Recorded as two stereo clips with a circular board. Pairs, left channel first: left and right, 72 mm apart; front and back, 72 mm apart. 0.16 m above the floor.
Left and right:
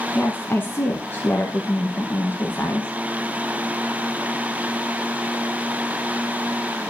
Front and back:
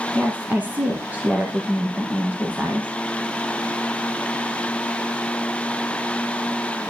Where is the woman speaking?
130° left, 1.8 m.